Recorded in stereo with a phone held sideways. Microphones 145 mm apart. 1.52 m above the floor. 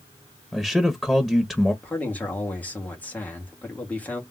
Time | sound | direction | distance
0.5 | a man speaking | 5° left (ahead or behind) | 0.9 m
1.8 | a man speaking | 10° left (ahead or behind) | 1.9 m